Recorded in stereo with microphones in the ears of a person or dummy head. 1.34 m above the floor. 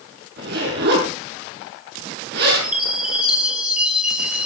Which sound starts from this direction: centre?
A chime, at 2.6 s.